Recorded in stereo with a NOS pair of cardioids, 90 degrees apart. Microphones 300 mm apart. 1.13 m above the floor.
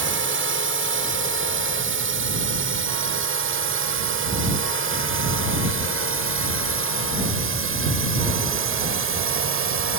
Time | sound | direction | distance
0.0 | a drone | 45° right | ?